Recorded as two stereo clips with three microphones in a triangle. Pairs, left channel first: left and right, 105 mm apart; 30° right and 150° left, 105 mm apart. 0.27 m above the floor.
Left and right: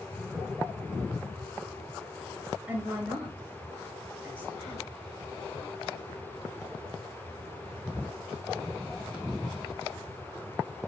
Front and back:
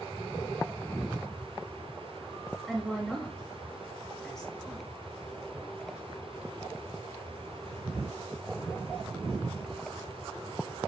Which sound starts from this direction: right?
A woman speaking, at 2.7 s.